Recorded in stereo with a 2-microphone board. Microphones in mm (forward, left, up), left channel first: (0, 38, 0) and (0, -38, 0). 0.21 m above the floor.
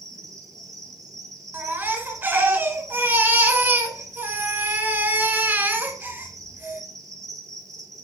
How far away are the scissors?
I don't hear scissors.